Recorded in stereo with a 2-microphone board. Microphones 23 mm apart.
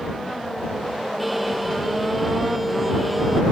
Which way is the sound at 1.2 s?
5° right (ahead or behind).